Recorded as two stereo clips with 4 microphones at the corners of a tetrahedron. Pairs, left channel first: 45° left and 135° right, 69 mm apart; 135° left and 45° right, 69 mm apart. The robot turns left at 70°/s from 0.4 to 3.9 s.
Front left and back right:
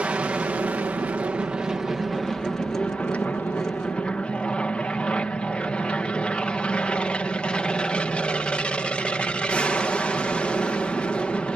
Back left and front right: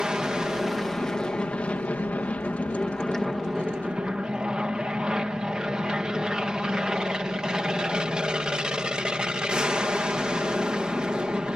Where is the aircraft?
105° right; by 11.6 s 10° left.